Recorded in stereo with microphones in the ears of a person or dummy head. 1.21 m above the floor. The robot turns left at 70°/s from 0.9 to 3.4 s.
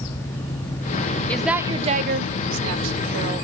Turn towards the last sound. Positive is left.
turn(degrees=-145)